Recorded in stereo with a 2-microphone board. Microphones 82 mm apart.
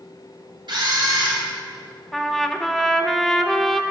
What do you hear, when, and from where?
0.7 s a camera shutter: 70° right (ahead or behind), 3.5 m
2.1 s a trumpet: centre (ahead or behind), 0.8 m